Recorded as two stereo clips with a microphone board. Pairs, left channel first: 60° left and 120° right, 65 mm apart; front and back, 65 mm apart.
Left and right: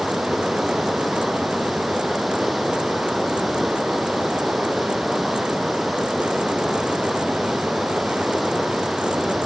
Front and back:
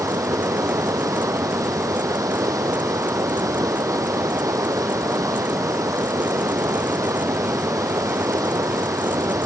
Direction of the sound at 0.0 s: 150° left.